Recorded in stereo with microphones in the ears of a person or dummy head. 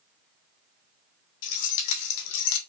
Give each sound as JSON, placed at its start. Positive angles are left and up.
{"t": 1.4, "sound": "keys jangling", "side_deg": 65, "distance_m": 1.6}